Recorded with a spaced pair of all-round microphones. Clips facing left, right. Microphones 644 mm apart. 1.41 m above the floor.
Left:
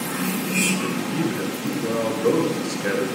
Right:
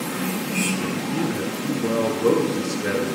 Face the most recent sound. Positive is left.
turn(degrees=-65)  # may be behind; listen again after turning